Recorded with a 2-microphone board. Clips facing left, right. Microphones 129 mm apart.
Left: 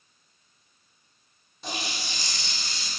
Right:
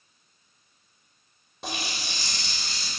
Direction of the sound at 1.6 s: 85° right.